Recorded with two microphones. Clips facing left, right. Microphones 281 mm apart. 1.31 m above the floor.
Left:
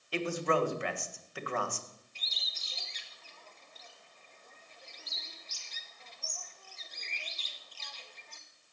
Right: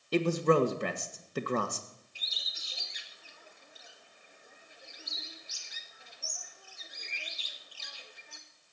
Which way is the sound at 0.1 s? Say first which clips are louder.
Right 6 dB; 45° right (ahead or behind).